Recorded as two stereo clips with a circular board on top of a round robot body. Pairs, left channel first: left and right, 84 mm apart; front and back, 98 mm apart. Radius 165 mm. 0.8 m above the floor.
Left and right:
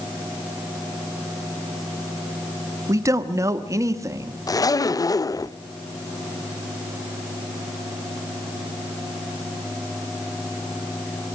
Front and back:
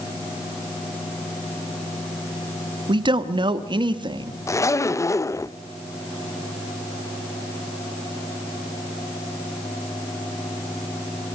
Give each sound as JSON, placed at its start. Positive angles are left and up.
{"t": 2.9, "sound": "a man speaking", "azimuth_deg": -145, "distance_m": 1.6}
{"t": 4.5, "sound": "a zipper", "azimuth_deg": 55, "distance_m": 0.9}